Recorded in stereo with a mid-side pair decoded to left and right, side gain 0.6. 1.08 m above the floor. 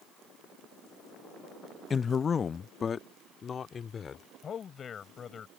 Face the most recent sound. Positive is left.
turn(degrees=40)